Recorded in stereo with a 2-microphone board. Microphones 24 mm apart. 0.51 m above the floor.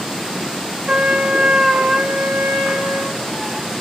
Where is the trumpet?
55° right (ahead or behind), 0.7 m.